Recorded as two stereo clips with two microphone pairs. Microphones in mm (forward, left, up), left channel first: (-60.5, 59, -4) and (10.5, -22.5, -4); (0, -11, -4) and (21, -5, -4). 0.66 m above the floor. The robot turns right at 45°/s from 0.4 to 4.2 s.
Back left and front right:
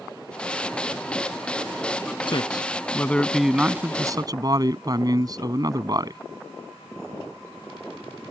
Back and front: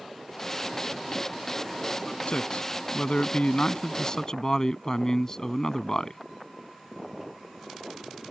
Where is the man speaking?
170° left; by 6.2 s 105° right.